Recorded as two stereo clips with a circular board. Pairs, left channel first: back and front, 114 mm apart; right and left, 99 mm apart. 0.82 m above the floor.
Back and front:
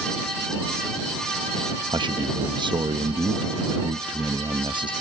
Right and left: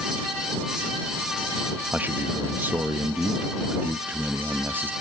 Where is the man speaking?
25° left.